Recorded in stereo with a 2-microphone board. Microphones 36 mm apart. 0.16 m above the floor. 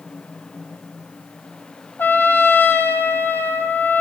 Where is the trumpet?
75° left (ahead or behind), 2 m.